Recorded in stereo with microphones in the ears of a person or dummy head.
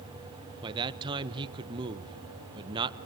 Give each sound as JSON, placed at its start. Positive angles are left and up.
{"t": 0.6, "sound": "a man speaking", "side_deg": -20, "distance_m": 1.1}